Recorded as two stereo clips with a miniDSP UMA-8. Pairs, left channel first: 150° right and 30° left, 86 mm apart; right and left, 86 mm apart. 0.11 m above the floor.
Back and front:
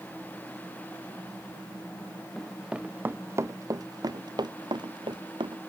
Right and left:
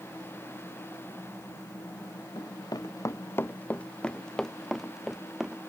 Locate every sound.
2.4 s running footsteps: 60° right; by 5.6 s 10° left